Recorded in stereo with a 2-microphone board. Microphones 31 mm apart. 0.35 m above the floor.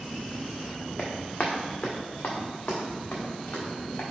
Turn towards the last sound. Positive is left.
turn(degrees=80)